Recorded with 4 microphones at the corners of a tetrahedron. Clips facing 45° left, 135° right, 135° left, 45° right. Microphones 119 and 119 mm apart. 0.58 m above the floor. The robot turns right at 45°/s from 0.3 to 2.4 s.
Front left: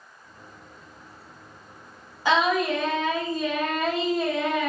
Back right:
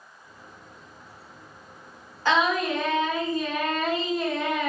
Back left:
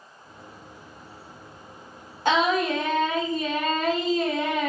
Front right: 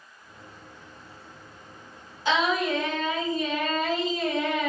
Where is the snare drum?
No snare drum in this recording.